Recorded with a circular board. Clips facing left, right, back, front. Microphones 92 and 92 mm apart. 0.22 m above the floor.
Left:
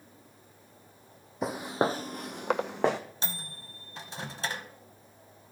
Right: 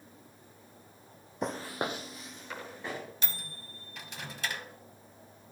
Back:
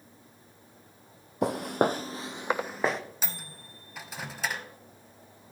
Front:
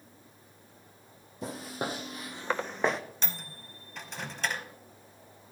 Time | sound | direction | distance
1.4 | footsteps | 175° left | 0.6 m
3.2 | a microwave | 100° left | 0.8 m